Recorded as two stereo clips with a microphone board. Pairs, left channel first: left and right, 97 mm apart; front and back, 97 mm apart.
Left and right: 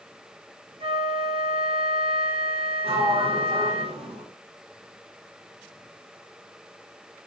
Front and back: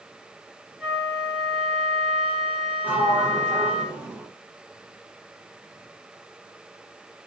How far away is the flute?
About 5 m.